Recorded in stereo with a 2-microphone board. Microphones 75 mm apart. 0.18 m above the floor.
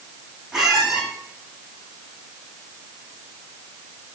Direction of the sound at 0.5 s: 5° right (ahead or behind).